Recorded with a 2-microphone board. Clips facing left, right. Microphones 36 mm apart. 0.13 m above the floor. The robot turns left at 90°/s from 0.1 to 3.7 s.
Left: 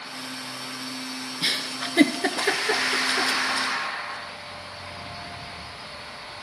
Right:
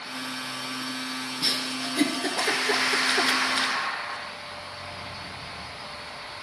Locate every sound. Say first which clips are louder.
1.4 s a giggle: left 2 dB; 35° left (ahead or behind), 0.7 m; by 3.7 s 45° right (ahead or behind), 0.7 m